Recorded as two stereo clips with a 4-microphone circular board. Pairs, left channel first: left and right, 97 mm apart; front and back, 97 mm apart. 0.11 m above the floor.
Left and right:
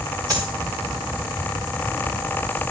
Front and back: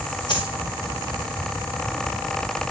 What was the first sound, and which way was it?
A dropped coin, 40° right.